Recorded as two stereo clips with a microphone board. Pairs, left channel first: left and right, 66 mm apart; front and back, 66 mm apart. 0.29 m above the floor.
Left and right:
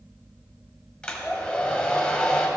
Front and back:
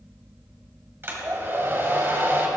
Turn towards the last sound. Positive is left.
turn(degrees=155)